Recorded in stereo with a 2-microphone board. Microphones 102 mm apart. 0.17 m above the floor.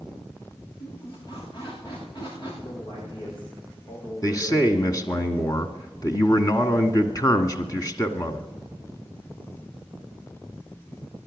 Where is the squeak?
55° left (ahead or behind), 10 m.